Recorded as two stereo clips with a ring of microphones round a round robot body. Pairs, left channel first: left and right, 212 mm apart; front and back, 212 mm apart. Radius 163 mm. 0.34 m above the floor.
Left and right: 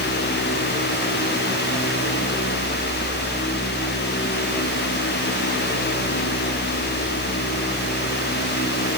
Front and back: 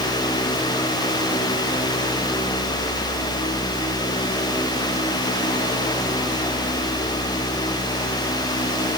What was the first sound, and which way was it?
Only background noise.